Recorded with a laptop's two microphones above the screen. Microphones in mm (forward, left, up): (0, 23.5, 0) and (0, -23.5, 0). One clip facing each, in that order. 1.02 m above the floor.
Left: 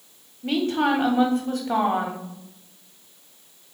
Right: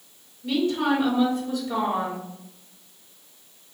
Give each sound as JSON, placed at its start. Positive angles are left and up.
{"t": 0.4, "sound": "a woman speaking", "side_deg": 55, "distance_m": 1.4}